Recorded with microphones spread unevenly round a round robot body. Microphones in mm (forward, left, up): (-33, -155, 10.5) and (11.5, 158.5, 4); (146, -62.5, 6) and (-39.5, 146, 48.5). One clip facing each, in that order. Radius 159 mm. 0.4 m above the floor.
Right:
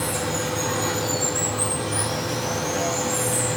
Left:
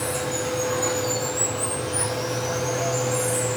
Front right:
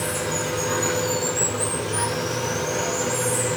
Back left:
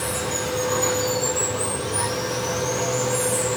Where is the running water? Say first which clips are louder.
Even, even; 140° right, 5.5 m.